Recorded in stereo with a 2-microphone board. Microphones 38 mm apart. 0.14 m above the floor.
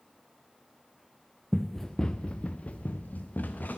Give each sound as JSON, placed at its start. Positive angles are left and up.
{"t": 1.5, "sound": "running footsteps", "side_deg": -5, "distance_m": 0.5}